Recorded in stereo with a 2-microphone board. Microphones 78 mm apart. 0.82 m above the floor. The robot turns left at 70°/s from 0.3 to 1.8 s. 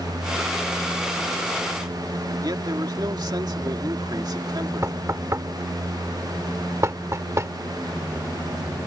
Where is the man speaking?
60° right (ahead or behind).